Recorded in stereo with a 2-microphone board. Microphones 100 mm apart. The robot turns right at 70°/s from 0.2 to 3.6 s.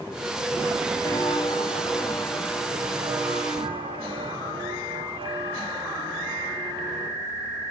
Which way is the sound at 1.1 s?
40° left (ahead or behind).